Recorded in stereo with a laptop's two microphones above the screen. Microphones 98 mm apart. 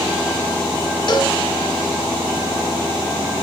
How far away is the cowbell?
About 1.1 m.